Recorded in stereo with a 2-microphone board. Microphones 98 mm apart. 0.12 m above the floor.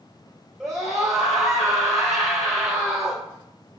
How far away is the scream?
About 3 m.